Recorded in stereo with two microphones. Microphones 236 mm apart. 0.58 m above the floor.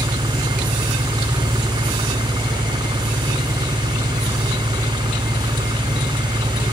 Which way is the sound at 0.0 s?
20° right (ahead or behind).